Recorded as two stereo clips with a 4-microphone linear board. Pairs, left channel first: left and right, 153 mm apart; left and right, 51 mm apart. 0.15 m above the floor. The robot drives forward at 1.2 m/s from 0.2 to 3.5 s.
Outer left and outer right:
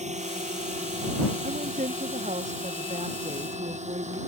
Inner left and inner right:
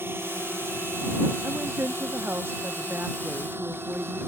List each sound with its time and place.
0.0 s a drone: 45° right (ahead or behind); by 4.3 s 50° right (ahead or behind)
1.4 s a woman speaking: 55° right (ahead or behind); by 4.2 s 45° right (ahead or behind)